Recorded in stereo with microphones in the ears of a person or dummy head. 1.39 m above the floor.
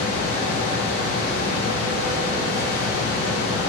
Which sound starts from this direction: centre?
A fan, at 0.0 s.